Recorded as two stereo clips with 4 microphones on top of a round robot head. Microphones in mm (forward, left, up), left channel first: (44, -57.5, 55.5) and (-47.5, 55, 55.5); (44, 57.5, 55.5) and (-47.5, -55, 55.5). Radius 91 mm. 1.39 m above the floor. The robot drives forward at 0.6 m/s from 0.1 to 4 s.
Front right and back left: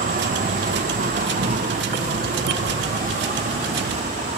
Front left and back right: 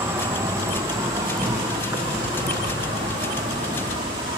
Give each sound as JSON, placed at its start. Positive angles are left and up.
{"t": 0.0, "sound": "an insect", "azimuth_deg": 155, "distance_m": 2.0}